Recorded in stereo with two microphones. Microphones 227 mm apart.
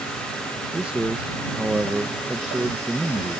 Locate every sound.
0.7 s a man speaking: 5° right (ahead or behind)